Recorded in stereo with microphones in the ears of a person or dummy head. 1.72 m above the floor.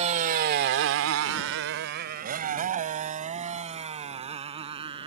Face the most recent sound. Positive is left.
turn(degrees=-25)  # may be behind; listen again after turning